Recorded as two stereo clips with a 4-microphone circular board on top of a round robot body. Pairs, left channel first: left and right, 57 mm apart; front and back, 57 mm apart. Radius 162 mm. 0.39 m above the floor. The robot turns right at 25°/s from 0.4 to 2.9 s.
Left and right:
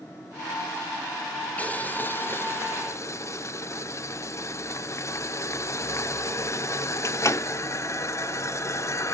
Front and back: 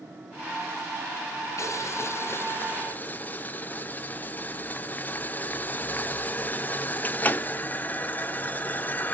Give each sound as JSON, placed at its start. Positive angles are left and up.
{"t": 1.6, "sound": "boiling", "azimuth_deg": 25, "distance_m": 1.2}